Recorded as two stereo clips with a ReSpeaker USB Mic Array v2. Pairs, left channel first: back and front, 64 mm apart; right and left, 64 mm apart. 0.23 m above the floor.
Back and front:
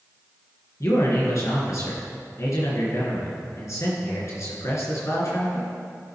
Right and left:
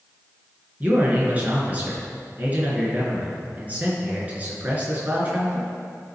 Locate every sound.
0.8 s a man speaking: 150° left, 2.5 m